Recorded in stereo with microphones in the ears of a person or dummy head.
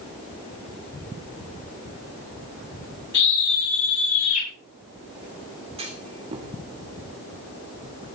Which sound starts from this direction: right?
A clunk, at 5.8 s.